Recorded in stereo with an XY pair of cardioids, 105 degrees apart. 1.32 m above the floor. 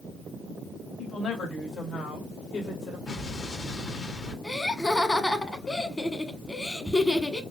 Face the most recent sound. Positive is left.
turn(degrees=15)